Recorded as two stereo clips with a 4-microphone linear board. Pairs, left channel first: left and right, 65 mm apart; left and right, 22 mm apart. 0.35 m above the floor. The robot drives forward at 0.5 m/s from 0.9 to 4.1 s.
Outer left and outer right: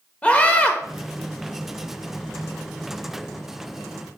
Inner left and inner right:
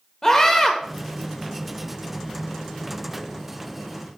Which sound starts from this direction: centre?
A scream, at 0.2 s.